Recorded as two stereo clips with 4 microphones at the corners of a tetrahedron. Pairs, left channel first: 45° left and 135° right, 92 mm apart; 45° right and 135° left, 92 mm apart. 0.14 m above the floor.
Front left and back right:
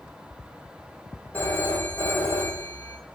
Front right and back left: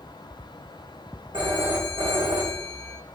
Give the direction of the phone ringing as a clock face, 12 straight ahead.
8 o'clock.